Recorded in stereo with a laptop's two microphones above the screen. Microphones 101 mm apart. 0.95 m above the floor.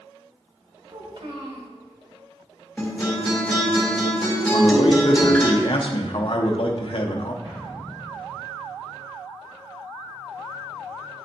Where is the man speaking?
55° left (ahead or behind), 0.6 m.